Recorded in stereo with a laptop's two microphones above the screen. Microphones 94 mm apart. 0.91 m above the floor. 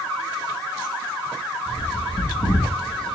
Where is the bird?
70° left (ahead or behind), 0.9 m.